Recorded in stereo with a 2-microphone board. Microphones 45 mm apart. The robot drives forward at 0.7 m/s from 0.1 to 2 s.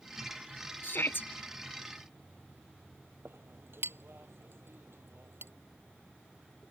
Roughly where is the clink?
Right.